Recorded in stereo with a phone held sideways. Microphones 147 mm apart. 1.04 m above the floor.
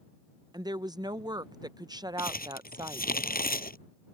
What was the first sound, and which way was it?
A woman speaking, 25° right (ahead or behind).